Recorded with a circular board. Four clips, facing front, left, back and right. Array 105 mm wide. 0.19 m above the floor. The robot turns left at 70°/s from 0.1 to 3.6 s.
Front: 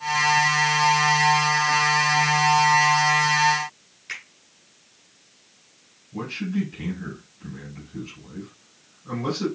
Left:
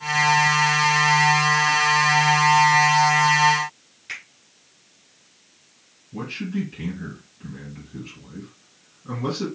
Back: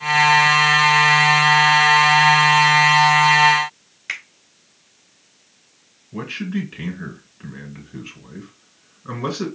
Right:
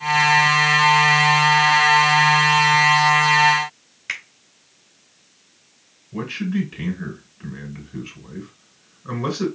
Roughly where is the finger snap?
Behind right.